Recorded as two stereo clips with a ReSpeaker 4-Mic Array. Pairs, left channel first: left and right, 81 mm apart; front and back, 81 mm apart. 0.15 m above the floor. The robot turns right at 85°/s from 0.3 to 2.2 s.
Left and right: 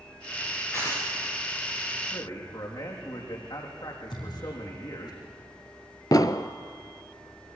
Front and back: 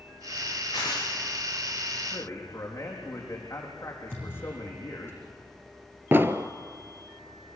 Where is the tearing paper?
20° left, 8.5 m; by 1.1 s 50° left, 8.5 m.